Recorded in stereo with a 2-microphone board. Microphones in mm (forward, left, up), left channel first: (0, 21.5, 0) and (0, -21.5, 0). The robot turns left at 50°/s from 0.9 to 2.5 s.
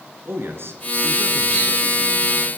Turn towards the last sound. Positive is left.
turn(degrees=-145)